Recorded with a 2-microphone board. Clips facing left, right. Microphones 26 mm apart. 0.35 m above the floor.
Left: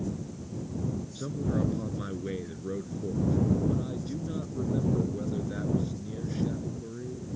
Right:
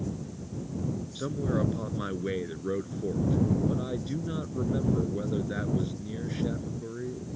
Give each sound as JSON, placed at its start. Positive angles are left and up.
{"t": 1.1, "sound": "a man speaking", "side_deg": -25}